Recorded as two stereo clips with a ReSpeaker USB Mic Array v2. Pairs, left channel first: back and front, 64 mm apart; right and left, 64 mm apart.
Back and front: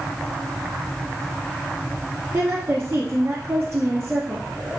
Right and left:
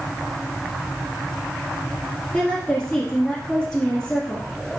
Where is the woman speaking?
Straight ahead, 1.5 m.